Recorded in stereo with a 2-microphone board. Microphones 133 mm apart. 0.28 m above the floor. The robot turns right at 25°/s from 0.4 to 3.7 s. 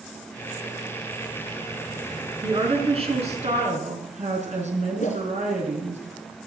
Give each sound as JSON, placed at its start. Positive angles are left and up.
{"t": 2.4, "sound": "a woman speaking", "azimuth_deg": -140, "distance_m": 4.0}
{"t": 5.0, "sound": "a whoosh", "side_deg": 70, "distance_m": 3.0}